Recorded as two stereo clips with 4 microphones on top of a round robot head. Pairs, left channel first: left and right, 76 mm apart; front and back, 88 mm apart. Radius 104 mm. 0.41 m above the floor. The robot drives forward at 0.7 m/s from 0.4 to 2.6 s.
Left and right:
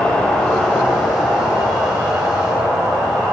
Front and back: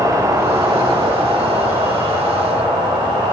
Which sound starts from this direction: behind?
An insect, at 0.0 s.